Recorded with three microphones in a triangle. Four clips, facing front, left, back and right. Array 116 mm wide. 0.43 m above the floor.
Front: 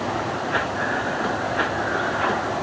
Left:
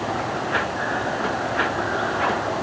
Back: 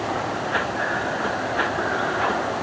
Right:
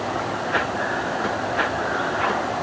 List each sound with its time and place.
Only background noise.